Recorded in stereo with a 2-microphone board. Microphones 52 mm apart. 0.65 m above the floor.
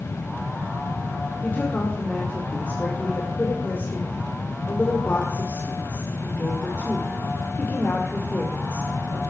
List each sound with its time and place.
1.4 s a woman speaking: 40° left (ahead or behind), 2 m